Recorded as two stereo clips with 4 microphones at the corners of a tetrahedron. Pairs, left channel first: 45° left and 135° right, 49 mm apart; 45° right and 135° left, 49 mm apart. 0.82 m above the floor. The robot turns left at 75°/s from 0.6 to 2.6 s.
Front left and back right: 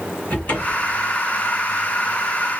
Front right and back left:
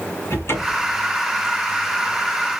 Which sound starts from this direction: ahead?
A cupboard door, at 0.3 s.